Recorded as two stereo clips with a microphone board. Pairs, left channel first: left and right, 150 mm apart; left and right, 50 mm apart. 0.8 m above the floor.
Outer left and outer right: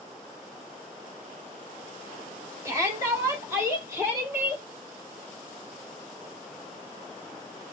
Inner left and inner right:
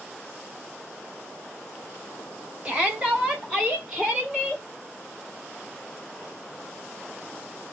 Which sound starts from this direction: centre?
A shout, at 2.6 s.